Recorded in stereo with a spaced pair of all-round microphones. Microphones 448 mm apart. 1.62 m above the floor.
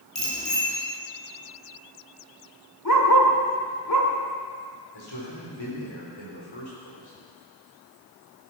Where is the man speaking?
85° left, 5 m.